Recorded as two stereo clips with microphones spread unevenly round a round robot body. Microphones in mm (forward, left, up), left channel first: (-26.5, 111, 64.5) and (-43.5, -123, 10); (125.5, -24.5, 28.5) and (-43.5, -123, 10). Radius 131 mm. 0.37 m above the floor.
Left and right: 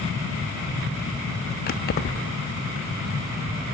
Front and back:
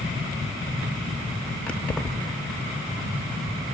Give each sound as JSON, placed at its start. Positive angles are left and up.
{"t": 1.7, "sound": "keys jangling", "azimuth_deg": 120, "distance_m": 0.7}